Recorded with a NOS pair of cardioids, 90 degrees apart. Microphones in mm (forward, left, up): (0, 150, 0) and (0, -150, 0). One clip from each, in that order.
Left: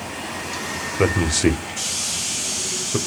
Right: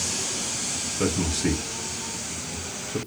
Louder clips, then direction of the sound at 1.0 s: Left 8 dB; 45° left.